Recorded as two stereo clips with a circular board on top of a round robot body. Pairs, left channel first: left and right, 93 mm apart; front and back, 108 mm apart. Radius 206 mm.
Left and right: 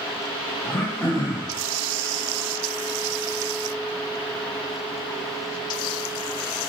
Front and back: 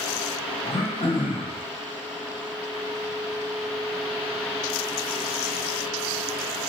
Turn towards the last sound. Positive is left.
turn(degrees=35)